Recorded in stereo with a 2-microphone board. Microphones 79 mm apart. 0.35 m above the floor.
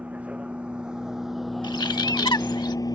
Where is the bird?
65° left (ahead or behind).